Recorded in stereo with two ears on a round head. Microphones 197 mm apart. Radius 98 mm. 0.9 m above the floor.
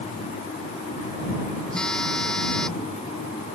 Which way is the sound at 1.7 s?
5° left (ahead or behind).